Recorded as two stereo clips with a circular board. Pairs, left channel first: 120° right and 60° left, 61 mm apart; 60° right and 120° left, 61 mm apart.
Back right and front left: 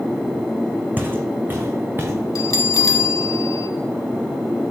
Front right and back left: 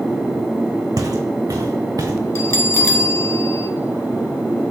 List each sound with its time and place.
1.0 s footsteps: 120° left, 0.9 m; by 2.1 s 115° left, 1.6 m
2.4 s a bell: 105° right, 0.7 m